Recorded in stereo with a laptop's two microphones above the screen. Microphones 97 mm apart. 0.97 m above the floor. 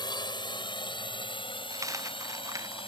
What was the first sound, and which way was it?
A drone, 50° left (ahead or behind).